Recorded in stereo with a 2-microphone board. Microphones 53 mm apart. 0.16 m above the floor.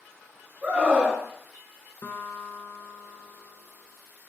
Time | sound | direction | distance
0.6 | a scream | 25° right (ahead or behind) | 1.2 m
2.0 | a guitar | 55° left (ahead or behind) | 0.6 m